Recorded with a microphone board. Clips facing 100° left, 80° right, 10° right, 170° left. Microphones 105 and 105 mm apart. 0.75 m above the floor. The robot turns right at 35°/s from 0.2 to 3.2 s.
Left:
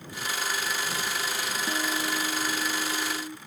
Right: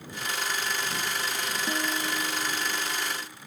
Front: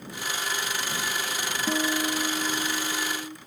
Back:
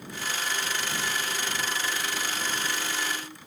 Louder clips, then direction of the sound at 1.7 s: Left 1 dB, front 6 dB; straight ahead.